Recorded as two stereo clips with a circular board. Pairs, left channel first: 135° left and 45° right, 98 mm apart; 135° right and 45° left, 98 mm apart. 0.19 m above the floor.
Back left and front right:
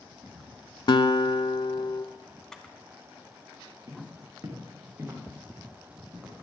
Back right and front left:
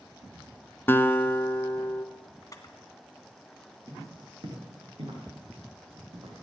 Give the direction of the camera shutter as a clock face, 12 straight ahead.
5 o'clock.